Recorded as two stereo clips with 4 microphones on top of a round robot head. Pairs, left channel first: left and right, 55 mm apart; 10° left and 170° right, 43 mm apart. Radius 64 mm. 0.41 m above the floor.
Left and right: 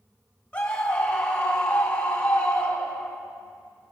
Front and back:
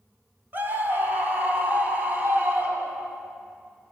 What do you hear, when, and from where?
0.5 s a scream: 150° left, 3.5 m; by 3.2 s 145° left, 5.5 m